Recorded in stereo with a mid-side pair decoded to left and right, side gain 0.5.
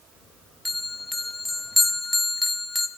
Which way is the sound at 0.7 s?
10° left.